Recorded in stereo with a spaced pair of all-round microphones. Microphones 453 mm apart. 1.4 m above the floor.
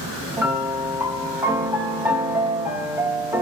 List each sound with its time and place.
0.4 s a piano: 5° right (ahead or behind), 1.0 m